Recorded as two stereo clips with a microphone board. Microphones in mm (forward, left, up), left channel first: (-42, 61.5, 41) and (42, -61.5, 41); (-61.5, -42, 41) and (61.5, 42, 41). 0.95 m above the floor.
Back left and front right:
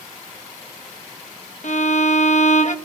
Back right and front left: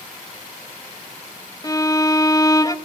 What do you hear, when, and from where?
1.6 s a violin: 150° left, 1.1 m